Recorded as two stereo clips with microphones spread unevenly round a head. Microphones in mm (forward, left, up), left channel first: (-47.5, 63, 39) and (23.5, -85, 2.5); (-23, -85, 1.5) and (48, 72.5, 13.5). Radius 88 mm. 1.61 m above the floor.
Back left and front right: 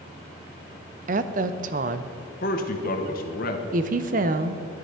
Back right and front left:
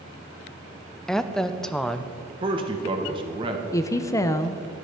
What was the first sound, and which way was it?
A woman speaking, 25° right.